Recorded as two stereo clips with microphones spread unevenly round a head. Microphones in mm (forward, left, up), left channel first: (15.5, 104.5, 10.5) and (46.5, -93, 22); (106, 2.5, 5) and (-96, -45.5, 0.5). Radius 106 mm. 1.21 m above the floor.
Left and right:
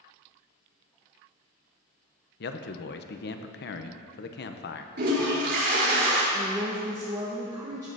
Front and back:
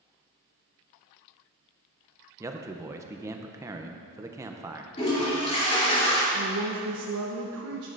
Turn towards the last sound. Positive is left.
turn(degrees=-155)